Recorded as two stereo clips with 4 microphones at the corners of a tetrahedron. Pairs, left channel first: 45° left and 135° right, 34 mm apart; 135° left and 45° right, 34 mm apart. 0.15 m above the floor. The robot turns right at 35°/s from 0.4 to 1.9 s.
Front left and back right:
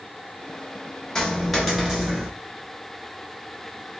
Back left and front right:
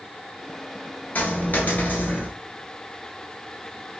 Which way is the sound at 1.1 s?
120° left.